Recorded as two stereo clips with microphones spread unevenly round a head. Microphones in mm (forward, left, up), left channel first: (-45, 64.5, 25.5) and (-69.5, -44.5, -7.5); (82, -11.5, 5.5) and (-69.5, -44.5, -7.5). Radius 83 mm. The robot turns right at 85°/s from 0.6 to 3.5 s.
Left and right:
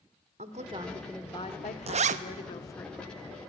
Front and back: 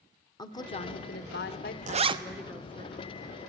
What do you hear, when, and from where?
0.4 s a woman speaking: 50° right, 1.2 m; by 2.9 s 145° left, 1.2 m
1.9 s a zipper: 135° right, 0.7 m; by 2.2 s 105° right, 0.7 m